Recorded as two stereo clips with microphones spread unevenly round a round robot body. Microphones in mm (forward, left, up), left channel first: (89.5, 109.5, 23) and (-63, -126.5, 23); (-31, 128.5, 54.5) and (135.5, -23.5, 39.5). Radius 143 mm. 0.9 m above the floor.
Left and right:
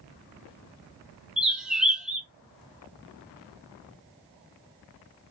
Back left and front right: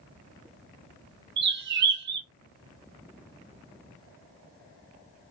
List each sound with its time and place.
1.4 s a bird: 35° right, 0.6 m